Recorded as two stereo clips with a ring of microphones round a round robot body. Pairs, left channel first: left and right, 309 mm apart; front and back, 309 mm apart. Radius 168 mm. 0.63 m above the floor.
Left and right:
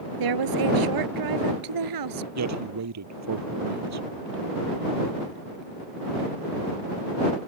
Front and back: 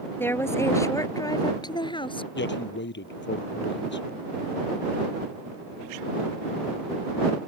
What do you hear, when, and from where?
0.2 s a woman speaking: 85° right; by 2.2 s 75° right
2.4 s a man speaking: 55° right